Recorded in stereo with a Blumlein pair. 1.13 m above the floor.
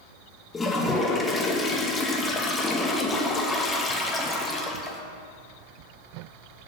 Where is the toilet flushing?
15° left, 0.9 m.